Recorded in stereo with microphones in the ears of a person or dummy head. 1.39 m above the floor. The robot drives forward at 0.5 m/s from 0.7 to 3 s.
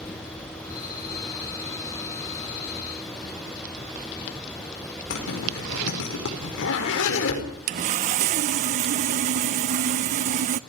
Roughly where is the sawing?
Right.